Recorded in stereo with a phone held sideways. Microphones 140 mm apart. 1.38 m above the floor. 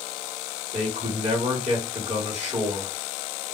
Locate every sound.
0.7 s a man speaking: 55° right (ahead or behind), 1.4 m